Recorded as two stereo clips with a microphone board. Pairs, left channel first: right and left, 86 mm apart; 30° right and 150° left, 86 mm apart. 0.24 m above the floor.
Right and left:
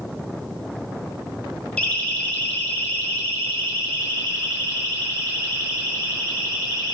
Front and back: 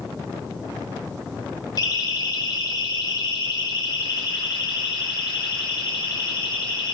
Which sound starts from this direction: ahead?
A siren, at 1.8 s.